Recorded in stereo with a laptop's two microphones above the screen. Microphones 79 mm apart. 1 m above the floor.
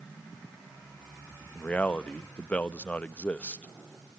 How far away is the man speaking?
About 1.0 m.